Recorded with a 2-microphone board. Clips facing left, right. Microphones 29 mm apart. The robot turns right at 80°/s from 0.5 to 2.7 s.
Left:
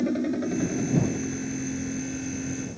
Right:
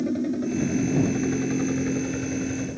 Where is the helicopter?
15° left (ahead or behind); by 2.8 s 25° right (ahead or behind).